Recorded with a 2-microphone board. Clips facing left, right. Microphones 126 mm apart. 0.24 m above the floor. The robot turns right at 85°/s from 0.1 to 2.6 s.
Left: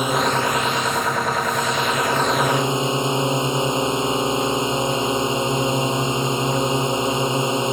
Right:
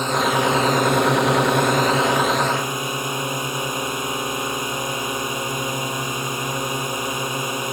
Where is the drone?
170° left; by 7.8 s 25° left.